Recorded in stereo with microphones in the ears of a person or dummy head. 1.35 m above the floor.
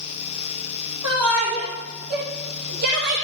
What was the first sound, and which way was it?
A shout, 30° right (ahead or behind).